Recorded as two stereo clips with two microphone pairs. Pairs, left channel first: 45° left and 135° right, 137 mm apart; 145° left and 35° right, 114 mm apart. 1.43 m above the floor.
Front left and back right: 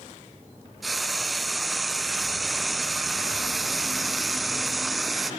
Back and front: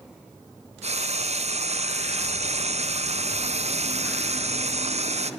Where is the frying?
40° right, 0.9 m.